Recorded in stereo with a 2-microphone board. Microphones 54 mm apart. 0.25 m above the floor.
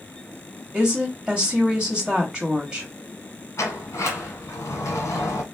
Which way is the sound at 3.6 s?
60° left (ahead or behind).